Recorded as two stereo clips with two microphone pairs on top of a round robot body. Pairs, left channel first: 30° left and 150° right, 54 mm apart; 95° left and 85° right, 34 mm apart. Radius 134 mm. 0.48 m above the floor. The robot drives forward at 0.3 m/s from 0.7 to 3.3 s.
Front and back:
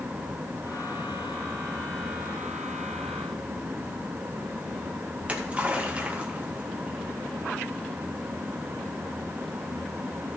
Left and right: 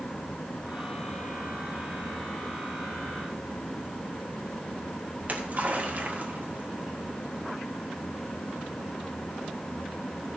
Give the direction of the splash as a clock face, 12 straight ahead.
3 o'clock.